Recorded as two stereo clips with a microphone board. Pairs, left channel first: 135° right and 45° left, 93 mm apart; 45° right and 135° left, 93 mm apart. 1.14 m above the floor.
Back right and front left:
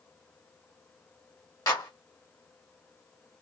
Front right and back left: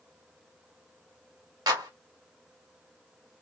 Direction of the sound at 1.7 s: Straight behind.